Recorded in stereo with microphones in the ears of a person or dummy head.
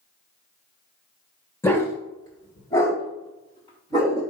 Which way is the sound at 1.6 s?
20° left (ahead or behind).